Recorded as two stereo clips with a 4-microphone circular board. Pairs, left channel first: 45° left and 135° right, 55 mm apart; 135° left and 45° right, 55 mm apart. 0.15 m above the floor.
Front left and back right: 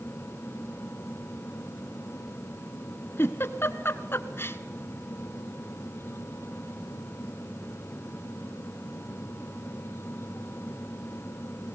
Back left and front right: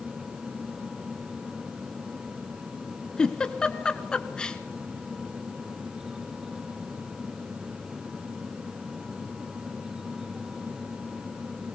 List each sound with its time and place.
3.2 s a giggle: 65° left, 1.1 m